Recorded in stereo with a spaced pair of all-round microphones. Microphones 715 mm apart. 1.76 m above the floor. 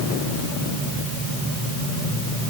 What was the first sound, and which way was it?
Only background noise.